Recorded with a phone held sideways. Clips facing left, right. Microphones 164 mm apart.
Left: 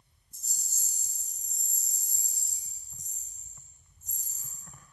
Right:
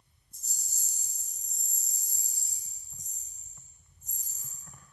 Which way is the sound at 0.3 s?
75° left (ahead or behind).